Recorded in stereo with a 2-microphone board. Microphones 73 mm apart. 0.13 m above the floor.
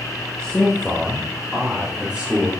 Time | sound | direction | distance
0.4 | a man speaking | 15° left (ahead or behind) | 2.5 m